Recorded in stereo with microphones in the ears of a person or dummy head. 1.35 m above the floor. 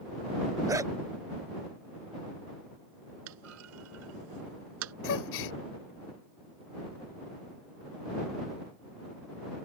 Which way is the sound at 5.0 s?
75° left (ahead or behind).